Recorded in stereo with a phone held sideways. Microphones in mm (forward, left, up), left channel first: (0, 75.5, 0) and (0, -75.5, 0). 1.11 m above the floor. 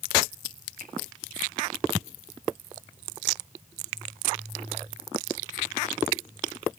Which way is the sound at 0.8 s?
85° right.